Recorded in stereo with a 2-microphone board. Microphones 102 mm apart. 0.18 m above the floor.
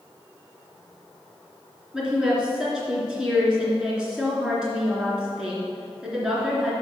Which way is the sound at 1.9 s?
10° right (ahead or behind).